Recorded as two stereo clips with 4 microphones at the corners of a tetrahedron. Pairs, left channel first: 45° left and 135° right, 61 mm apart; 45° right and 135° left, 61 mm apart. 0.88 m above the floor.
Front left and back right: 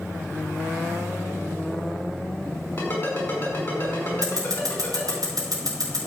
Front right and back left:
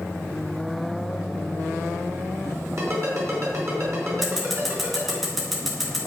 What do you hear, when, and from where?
2.8 s a ringtone: 100° left, 5 m
4.2 s scissors: 135° right, 4 m